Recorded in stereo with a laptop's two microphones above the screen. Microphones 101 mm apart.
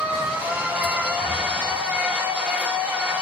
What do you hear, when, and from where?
0.0 s a machine running: 15° right (ahead or behind), 1.2 m